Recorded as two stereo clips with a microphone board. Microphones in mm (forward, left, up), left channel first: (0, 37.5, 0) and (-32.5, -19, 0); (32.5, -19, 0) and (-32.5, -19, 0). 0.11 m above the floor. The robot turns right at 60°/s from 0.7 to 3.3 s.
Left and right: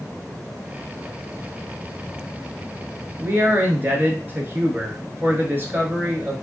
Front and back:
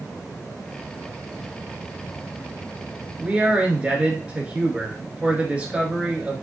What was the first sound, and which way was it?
A man speaking, 135° right.